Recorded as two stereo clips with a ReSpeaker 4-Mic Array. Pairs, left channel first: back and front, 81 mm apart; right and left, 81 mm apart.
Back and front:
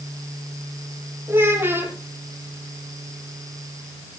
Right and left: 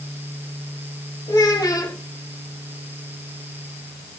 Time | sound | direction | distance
1.3 | a child speaking | 60° right | 6 m